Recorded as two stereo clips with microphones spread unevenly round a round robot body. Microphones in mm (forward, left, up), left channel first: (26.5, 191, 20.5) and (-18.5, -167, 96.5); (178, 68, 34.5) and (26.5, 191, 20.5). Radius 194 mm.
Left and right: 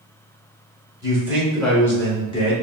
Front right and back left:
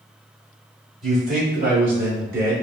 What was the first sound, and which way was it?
A man speaking, 175° left.